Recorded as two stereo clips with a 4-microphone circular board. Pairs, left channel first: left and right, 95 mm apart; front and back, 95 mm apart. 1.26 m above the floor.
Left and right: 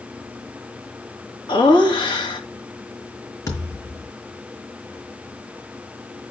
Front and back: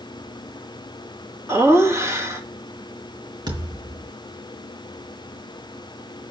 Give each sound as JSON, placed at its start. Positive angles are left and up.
{"t": 1.5, "sound": "laughter", "azimuth_deg": 120, "distance_m": 2.5}
{"t": 3.5, "sound": "a thud", "azimuth_deg": 145, "distance_m": 4.0}